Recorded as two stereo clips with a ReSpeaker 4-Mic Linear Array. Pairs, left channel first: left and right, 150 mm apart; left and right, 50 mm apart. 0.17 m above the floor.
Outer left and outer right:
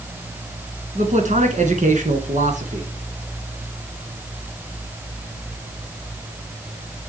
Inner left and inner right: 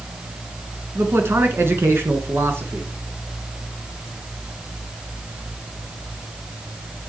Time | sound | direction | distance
0.9 | a man speaking | 55° right (ahead or behind) | 2 m